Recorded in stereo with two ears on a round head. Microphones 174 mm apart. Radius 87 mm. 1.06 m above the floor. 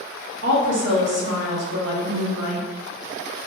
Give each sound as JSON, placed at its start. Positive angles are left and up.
{"t": 0.4, "sound": "a woman speaking", "side_deg": -65, "distance_m": 1.0}